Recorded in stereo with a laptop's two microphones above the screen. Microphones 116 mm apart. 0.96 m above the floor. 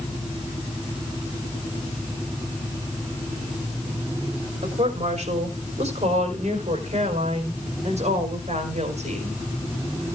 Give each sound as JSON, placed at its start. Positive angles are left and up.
{"t": 4.6, "sound": "a woman speaking", "side_deg": -75, "distance_m": 3.0}